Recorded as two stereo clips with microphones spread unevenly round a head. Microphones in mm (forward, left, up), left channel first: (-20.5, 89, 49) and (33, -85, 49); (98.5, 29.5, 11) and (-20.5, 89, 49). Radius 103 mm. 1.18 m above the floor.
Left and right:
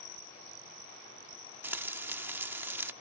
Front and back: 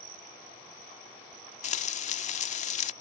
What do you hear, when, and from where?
1.6 s frying: straight ahead